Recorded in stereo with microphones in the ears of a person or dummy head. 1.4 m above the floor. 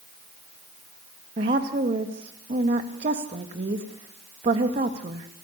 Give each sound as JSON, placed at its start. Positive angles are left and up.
{"t": 1.4, "sound": "a woman speaking", "side_deg": -35, "distance_m": 2.5}